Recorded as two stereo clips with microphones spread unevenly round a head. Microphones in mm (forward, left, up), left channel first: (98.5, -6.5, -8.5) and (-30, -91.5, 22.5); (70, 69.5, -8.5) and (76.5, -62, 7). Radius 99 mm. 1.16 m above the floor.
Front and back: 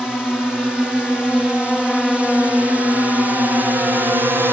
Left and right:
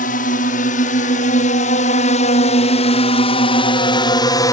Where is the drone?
120° left; by 4.5 s 125° left.